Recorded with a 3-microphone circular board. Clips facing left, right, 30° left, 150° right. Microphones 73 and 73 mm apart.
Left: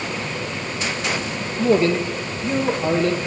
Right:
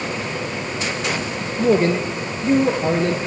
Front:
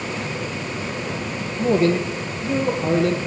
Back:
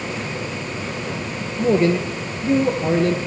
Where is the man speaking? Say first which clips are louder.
Right 1 dB, back 1 dB; 130° right, 4 m.